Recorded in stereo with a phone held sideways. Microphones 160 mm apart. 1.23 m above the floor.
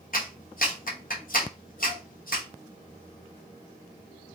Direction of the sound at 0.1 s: 60° left (ahead or behind).